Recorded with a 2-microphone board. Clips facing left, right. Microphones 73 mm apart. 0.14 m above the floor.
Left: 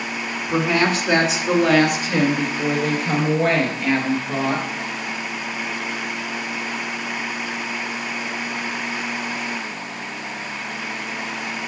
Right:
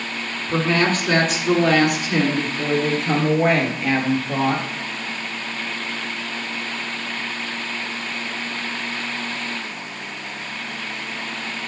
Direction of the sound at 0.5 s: 15° left (ahead or behind).